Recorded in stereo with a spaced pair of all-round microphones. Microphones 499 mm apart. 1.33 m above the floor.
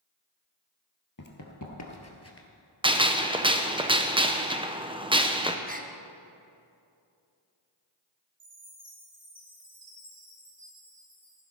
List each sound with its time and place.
1.2 s running footsteps: 40° left (ahead or behind), 1.6 m; by 2.5 s 25° left (ahead or behind), 1.5 m
2.8 s a gunshot: 10° right (ahead or behind), 0.7 m
5.7 s a gasp: 15° right (ahead or behind), 0.8 m
8.4 s a chime: 65° right (ahead or behind), 4.5 m